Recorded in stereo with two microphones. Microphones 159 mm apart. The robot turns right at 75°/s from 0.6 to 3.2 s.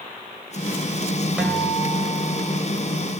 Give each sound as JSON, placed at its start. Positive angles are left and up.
{"t": 1.4, "sound": "a guitar", "azimuth_deg": -5, "distance_m": 2.5}